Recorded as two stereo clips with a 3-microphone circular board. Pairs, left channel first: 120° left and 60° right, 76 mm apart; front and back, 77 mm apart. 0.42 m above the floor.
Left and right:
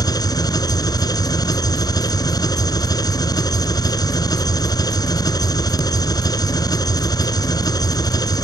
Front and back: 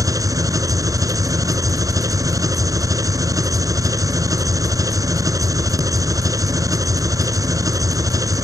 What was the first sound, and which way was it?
An engine running, 145° left.